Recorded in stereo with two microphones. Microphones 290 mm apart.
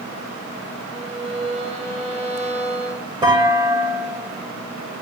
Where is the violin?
20° right (ahead or behind), 4.5 m.